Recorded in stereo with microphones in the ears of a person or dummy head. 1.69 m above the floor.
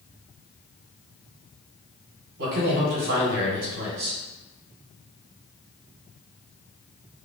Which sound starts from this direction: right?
A man speaking, at 2.4 s.